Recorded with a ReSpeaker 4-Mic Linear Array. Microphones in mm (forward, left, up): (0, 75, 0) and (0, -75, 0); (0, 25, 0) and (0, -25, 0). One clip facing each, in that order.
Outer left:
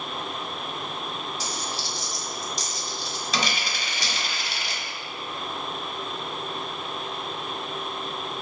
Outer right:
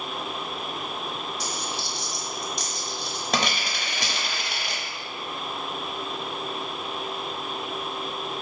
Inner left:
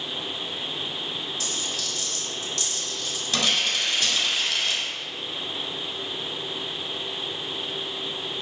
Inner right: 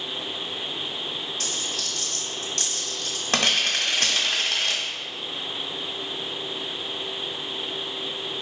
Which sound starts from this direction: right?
A dropped coin, at 1.4 s.